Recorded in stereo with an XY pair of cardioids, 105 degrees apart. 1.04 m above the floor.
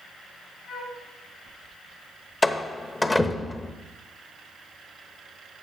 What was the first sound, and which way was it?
A flute, 65° left.